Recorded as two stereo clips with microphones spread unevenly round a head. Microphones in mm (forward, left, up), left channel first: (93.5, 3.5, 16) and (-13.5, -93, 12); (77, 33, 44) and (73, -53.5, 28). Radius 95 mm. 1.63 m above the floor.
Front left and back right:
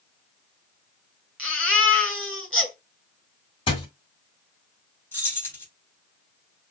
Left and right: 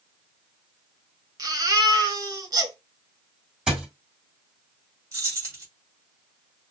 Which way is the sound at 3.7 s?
10° right.